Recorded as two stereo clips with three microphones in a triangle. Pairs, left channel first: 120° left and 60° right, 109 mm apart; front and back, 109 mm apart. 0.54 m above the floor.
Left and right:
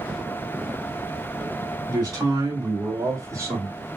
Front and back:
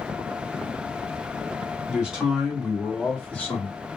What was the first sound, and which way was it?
A man speaking, 105° right.